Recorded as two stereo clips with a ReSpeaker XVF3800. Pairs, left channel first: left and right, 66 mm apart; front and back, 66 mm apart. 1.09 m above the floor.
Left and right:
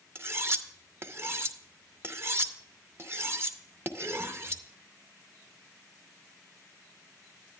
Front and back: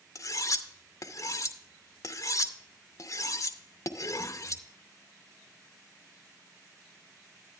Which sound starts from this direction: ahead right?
Cutlery clinking, at 0.1 s.